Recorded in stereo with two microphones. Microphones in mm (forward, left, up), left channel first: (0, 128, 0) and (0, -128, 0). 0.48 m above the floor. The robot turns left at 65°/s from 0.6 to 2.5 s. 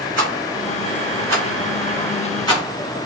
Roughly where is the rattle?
Right.